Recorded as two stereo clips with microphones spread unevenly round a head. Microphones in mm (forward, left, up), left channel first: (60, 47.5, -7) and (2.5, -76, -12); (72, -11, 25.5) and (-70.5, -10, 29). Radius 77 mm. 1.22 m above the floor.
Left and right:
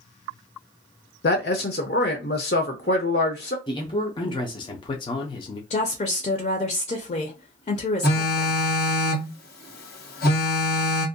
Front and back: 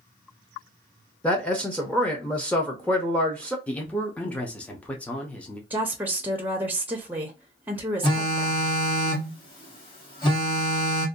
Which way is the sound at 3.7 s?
70° left.